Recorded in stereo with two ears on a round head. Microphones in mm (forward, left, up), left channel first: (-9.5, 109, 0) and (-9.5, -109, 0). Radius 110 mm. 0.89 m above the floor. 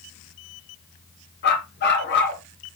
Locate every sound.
1.4 s a dog barking: 45° left (ahead or behind), 3 m